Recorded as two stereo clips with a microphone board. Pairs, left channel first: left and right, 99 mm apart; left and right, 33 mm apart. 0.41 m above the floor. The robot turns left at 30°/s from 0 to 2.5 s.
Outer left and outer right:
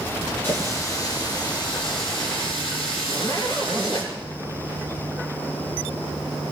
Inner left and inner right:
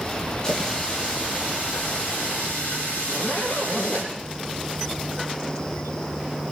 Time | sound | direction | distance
0.4 | a running tap | 155° left | 7.5 m
3.0 | a zipper | 55° left (ahead or behind) | 6.5 m